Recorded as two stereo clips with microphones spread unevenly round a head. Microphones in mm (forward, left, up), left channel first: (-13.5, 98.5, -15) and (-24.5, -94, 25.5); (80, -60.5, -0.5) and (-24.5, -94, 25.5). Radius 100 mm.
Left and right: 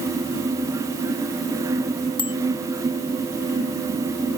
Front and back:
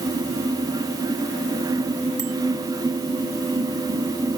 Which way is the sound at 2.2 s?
155° left.